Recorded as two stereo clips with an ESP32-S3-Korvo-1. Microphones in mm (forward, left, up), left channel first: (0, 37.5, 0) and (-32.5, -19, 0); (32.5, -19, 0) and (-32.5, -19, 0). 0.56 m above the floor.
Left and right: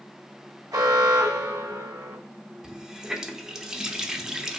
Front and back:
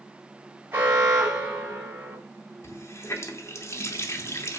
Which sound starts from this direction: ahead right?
A running tap, at 2.6 s.